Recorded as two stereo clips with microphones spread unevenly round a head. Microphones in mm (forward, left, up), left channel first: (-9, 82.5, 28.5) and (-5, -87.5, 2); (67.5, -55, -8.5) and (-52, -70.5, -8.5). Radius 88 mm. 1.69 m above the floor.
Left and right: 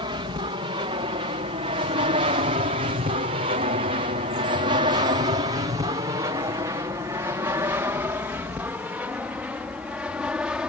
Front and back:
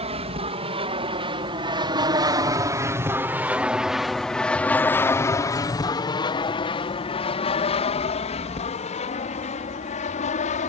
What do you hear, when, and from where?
0.0 s an aircraft: 150° right; by 10.7 s 5° right